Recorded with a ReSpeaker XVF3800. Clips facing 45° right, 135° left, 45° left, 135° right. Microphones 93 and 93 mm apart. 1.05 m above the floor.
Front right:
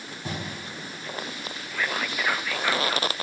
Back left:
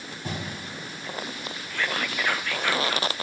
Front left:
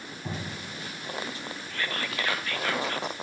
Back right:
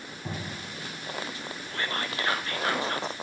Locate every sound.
1.7 s whispering: 125° right, 0.5 m